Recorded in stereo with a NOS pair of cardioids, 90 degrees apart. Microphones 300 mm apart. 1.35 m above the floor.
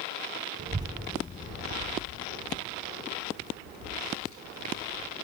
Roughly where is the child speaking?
Ahead right.